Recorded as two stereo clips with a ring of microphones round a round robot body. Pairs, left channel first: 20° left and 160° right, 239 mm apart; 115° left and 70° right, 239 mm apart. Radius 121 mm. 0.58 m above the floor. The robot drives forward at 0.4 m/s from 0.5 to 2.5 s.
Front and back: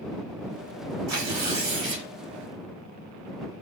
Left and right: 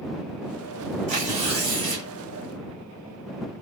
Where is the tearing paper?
130° right, 1.2 m; by 2.1 s 140° right, 1.5 m.